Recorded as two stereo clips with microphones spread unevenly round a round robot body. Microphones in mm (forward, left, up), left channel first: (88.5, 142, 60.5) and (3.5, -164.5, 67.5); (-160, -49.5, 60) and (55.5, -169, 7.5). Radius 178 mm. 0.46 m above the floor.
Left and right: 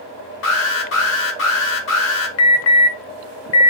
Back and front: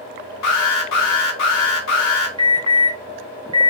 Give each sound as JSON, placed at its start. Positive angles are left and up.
{"t": 0.4, "sound": "an alarm", "azimuth_deg": 125, "distance_m": 1.3}
{"t": 2.4, "sound": "an alarm", "azimuth_deg": 35, "distance_m": 0.7}